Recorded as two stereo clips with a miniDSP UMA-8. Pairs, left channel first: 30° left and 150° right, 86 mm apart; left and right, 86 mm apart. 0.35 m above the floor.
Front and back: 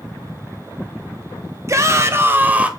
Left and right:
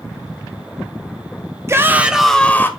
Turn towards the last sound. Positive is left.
turn(degrees=140)